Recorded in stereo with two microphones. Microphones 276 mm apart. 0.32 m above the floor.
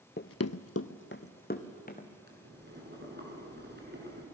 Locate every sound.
0.2 s running footsteps: 35° left (ahead or behind), 0.6 m; by 2.1 s 30° left (ahead or behind), 2.5 m
2.3 s boiling: 40° right (ahead or behind), 4.5 m